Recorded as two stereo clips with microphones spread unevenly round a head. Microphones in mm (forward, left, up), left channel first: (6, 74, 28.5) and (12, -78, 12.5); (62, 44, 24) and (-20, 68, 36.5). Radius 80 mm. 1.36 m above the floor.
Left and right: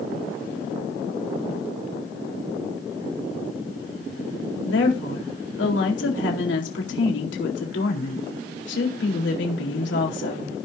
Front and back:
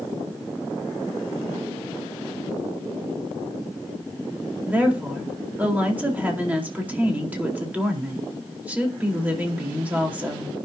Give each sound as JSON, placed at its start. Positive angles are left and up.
{"t": 4.7, "sound": "a woman speaking", "azimuth_deg": 90, "distance_m": 4.0}